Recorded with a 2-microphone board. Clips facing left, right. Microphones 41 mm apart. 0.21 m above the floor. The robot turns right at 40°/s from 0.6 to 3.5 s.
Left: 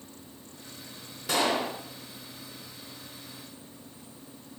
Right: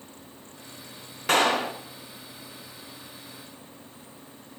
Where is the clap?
60° right (ahead or behind), 2 m; by 1.8 s 55° right (ahead or behind), 2 m.